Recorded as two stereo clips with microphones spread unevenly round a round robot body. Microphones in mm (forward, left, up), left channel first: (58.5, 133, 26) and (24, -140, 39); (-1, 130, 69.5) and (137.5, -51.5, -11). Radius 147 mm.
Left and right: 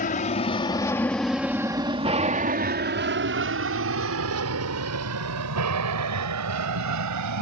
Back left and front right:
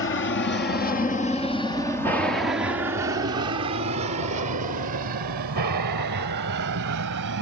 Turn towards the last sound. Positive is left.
turn(degrees=-80)